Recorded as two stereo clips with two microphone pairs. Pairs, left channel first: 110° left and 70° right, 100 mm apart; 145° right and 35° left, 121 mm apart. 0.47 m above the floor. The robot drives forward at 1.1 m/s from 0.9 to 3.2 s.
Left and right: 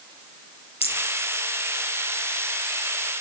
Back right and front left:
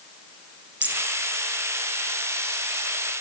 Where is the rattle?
115° left, 6.5 m.